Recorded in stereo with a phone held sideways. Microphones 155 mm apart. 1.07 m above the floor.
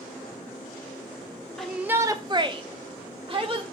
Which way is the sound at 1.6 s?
5° left (ahead or behind).